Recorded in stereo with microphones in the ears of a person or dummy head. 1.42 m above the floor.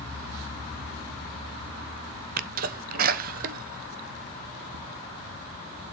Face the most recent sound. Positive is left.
turn(degrees=-55)  # may be behind; listen again after turning